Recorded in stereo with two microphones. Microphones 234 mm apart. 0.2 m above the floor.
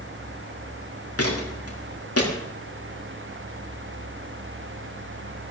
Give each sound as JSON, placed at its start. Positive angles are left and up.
{"t": 1.2, "sound": "footsteps", "side_deg": 80, "distance_m": 6.5}